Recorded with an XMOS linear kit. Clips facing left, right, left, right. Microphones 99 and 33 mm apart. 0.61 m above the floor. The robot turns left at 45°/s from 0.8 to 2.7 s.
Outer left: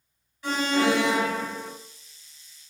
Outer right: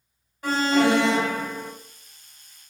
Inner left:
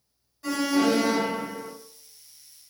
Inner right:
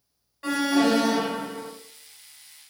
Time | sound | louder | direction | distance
0.4 | an alarm | outer right 3 dB, inner right 1 dB | 65° right | 1.0 m